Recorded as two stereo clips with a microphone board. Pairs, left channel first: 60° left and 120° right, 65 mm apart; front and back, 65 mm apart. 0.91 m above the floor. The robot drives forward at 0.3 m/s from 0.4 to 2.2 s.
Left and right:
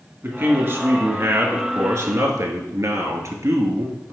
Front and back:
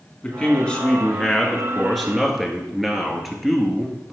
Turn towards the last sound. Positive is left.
turn(degrees=-95)